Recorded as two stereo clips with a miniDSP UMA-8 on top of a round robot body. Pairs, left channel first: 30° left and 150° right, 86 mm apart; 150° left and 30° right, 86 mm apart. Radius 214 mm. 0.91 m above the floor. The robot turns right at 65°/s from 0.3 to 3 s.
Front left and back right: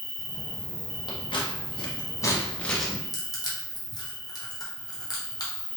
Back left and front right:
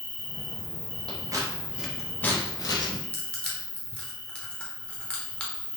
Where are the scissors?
5° left, 0.8 m; by 3.0 s 130° left, 0.8 m.